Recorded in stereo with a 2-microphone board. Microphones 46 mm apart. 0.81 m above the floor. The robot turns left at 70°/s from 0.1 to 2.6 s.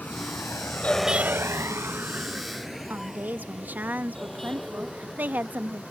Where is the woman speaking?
45° right (ahead or behind).